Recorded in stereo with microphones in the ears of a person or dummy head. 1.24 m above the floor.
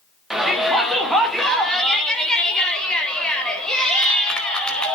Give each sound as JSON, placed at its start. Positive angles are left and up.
{"t": 0.3, "sound": "a shout", "side_deg": 0, "distance_m": 2.5}